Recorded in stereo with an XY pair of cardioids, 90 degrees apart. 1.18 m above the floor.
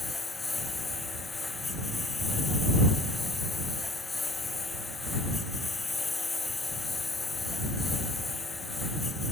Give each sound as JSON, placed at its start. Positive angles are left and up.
{"t": 0.0, "sound": "a lawn mower", "azimuth_deg": 25}